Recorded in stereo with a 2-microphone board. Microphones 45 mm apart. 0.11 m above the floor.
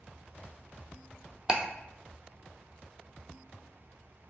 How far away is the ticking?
About 0.6 m.